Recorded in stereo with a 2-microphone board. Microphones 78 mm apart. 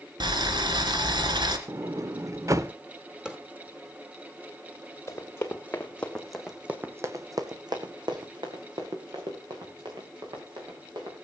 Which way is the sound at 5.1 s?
30° left (ahead or behind).